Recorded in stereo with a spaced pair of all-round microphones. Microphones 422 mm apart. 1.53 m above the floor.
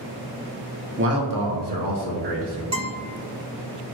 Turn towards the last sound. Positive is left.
turn(degrees=-40)  # may be behind; listen again after turning